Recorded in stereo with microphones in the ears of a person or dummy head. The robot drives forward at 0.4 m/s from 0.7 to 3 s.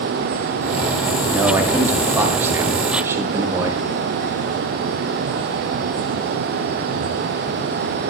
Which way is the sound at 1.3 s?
10° right (ahead or behind).